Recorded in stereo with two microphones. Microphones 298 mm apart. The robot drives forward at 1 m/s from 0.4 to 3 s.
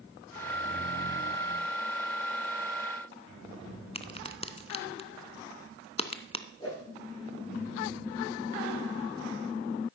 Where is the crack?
20° left (ahead or behind), 0.8 m.